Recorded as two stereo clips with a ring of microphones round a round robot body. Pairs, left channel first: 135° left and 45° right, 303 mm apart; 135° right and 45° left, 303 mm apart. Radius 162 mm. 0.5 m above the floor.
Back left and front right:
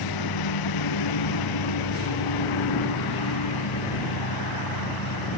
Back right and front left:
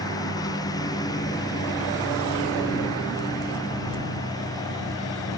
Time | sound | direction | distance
0.0 | a lawn mower | 145° left | ?